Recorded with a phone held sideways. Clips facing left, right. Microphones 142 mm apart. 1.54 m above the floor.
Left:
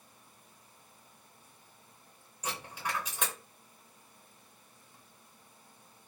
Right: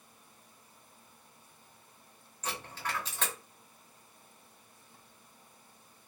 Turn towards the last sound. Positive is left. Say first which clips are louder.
# left 1 dB
turn(degrees=10)  # may be behind; listen again after turning